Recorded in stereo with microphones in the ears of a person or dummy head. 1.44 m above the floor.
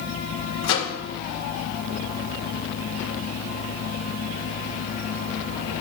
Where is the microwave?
70° left (ahead or behind), 1.9 m.